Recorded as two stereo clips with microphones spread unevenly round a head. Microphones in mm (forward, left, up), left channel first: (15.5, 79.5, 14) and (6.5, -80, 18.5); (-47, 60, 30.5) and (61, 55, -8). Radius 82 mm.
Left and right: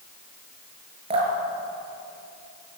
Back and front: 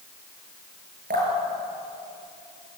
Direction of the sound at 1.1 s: 35° right.